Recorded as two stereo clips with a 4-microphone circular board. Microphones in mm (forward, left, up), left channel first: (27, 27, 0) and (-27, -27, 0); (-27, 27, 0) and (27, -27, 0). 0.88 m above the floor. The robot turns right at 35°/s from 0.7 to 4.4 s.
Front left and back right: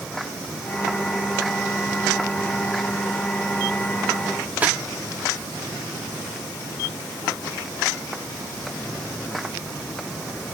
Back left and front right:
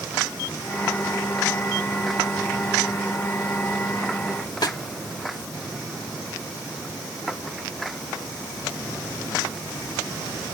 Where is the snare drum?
155° left.